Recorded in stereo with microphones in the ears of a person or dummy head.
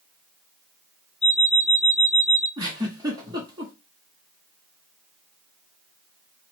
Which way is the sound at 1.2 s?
25° right (ahead or behind).